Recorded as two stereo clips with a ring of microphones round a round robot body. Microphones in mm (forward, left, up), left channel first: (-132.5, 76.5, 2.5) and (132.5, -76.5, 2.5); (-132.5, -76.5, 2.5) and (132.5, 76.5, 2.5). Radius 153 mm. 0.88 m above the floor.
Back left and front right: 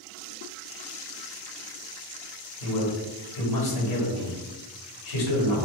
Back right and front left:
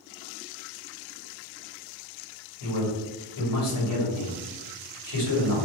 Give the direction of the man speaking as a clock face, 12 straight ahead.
6 o'clock.